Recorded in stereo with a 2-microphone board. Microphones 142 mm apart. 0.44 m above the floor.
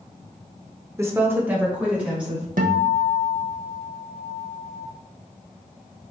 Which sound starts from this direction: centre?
A woman speaking, at 1.0 s.